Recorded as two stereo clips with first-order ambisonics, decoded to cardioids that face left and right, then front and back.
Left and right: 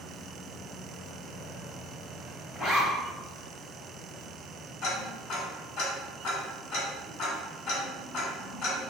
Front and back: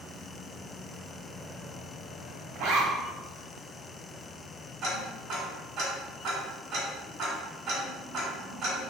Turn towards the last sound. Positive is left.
turn(degrees=130)